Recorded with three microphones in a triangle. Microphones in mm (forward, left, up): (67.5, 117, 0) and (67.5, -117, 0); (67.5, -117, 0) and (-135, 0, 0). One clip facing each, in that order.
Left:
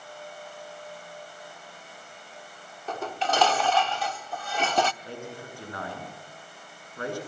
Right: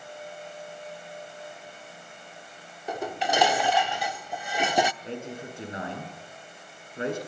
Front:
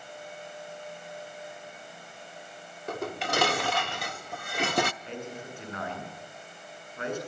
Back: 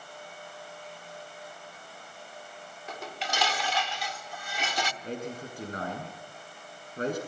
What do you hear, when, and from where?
2.9 s dishes clattering: 15° right, 0.8 m
5.0 s a man speaking: 160° right, 7.5 m